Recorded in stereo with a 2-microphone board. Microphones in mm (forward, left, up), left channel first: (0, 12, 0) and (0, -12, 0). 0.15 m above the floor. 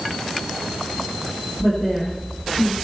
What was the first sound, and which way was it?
A woman speaking, 10° left (ahead or behind).